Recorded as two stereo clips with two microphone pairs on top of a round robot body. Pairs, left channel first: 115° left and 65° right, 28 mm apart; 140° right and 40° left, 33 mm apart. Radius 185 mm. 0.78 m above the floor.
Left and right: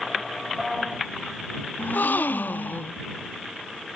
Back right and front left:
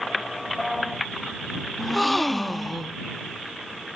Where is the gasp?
130° left.